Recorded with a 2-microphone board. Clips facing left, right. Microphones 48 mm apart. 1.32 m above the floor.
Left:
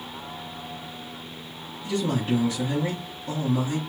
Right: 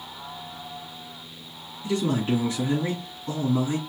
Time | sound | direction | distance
1.8 | a man speaking | 30° right (ahead or behind) | 3 m